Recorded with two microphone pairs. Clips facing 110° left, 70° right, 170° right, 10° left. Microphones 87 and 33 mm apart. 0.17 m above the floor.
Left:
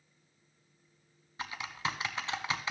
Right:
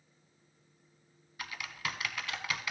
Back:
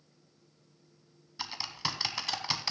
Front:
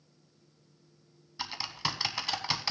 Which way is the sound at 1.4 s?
80° left.